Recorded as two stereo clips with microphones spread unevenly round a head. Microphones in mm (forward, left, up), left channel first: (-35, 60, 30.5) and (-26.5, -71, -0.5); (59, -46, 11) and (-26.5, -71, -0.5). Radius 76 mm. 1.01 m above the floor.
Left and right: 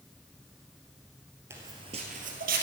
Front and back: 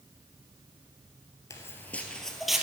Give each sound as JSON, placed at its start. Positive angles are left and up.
{"t": 1.5, "sound": "footsteps", "azimuth_deg": -5, "distance_m": 1.3}